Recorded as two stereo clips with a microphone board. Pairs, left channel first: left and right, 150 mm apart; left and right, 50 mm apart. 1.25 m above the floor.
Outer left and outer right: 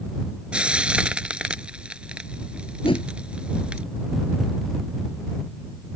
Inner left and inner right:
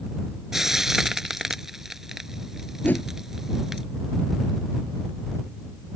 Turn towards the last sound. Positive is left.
turn(degrees=35)  # may be behind; listen again after turning